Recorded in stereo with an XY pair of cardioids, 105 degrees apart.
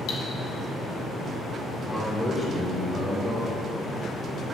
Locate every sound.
0.1 s cutlery clinking: 60° left, 2.5 m
1.7 s a man speaking: 20° left, 3 m